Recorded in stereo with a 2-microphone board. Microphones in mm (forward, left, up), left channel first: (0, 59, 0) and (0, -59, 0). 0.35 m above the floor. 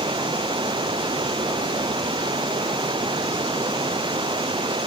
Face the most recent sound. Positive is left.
turn(degrees=-45)  # may be behind; listen again after turning